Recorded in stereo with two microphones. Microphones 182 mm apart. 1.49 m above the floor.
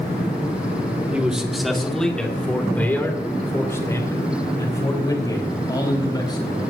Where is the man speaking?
5° right (ahead or behind), 1.7 m; by 6.6 s 25° left (ahead or behind), 4.5 m.